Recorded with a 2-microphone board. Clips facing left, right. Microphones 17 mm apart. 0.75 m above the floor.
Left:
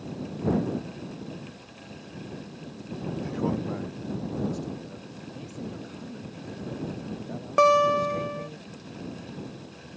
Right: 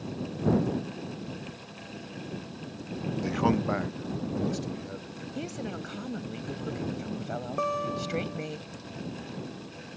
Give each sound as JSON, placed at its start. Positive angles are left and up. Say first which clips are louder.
{"t": 3.2, "sound": "a man speaking", "louder": "right 4 dB", "side_deg": -30}
{"t": 5.3, "sound": "a woman speaking", "louder": "right 4 dB", "side_deg": -40}
{"t": 7.6, "sound": "a guitar", "louder": "left 12 dB", "side_deg": 50}